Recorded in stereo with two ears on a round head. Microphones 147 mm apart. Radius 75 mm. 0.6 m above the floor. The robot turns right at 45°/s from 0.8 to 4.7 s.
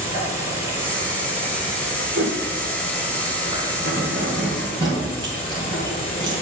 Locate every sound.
0.0 s an insect: 165° right, 4 m; by 6.4 s 15° left, 4 m
2.1 s a whoosh: 85° right, 3.5 m; by 2.4 s 75° right (ahead or behind), 3.5 m
3.9 s keys jangling: 65° right (ahead or behind), 2.5 m; by 6.4 s 25° right (ahead or behind), 2.5 m